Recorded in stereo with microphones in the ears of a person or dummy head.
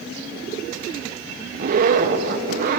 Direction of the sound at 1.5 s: 50° right (ahead or behind).